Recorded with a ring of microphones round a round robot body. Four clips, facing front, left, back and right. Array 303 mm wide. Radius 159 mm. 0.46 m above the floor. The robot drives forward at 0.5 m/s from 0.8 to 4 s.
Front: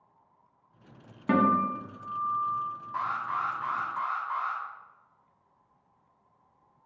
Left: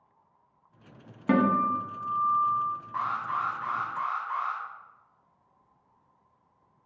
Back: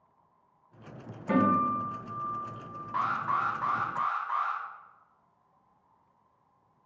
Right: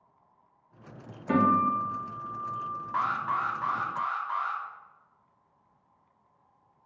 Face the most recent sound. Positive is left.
turn(degrees=-160)